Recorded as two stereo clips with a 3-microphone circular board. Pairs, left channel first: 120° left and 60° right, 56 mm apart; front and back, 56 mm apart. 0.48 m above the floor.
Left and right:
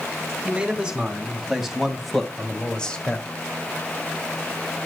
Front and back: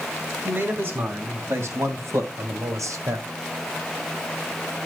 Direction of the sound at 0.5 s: 130° right.